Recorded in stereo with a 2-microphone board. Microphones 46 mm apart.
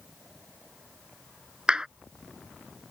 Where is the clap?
20° right (ahead or behind).